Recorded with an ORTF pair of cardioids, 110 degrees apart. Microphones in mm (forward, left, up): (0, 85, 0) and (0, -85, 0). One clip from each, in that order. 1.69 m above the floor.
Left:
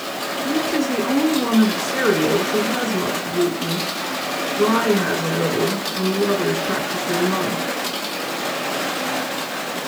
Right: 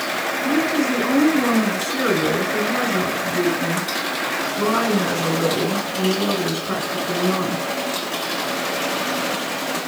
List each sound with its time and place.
0.4 s a woman speaking: straight ahead, 2.5 m